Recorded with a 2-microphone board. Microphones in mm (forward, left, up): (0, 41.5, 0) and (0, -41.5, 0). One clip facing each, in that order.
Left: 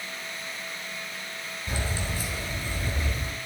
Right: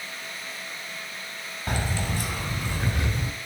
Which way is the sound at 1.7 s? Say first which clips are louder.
Right 4 dB; 50° right (ahead or behind).